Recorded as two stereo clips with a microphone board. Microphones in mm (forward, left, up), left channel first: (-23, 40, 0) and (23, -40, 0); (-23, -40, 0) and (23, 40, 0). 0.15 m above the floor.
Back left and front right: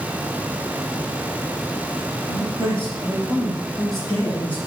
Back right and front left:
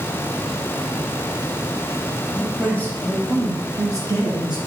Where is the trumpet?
I don't hear a trumpet.